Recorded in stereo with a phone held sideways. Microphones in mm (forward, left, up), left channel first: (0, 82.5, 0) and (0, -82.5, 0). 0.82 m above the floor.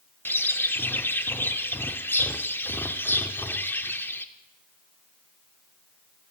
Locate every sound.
0.2 s a bird: 10° left (ahead or behind), 0.6 m